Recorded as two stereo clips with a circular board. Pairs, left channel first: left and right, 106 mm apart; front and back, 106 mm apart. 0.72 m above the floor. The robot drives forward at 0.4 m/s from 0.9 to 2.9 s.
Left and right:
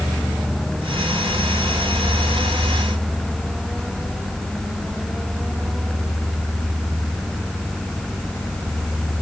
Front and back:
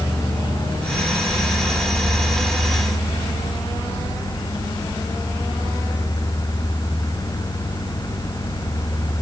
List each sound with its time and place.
Only background noise.